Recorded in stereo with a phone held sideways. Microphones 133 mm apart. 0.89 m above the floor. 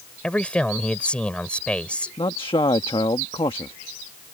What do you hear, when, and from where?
0.2 s a man speaking: 10° left (ahead or behind)
2.2 s a man speaking: 40° left (ahead or behind)